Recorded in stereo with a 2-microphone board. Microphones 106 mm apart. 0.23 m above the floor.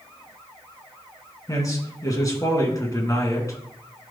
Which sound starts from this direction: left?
A man speaking, at 1.5 s.